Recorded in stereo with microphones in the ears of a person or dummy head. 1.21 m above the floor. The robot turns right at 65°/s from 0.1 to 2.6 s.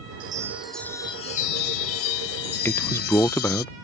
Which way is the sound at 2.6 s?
10° left (ahead or behind).